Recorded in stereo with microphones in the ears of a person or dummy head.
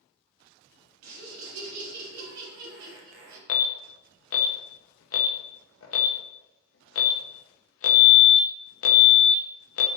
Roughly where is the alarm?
Left.